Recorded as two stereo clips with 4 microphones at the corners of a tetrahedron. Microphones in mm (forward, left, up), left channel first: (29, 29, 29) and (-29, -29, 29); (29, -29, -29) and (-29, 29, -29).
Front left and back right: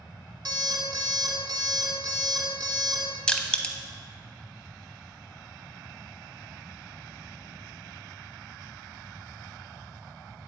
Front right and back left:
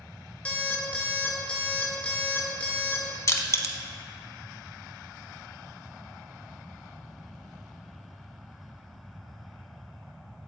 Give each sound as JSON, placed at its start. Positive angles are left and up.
{"t": 0.5, "sound": "an alarm clock", "azimuth_deg": -115, "distance_m": 1.3}
{"t": 3.3, "sound": "crushing", "azimuth_deg": -30, "distance_m": 0.6}